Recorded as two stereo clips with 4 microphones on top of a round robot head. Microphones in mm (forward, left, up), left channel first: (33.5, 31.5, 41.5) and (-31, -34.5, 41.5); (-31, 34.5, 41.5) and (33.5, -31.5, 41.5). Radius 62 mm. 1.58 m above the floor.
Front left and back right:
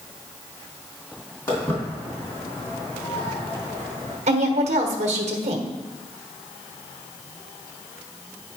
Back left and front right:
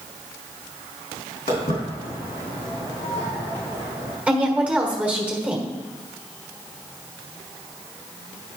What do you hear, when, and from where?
1.5 s footsteps: 105° left, 3 m; by 4.2 s 100° left, 6.5 m
4.3 s a woman speaking: 125° right, 1.2 m